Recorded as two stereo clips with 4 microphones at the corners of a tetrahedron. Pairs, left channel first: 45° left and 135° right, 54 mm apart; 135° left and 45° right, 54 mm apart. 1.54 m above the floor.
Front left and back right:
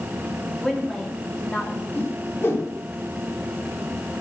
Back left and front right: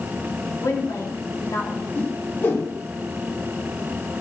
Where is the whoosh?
95° left, 4 m.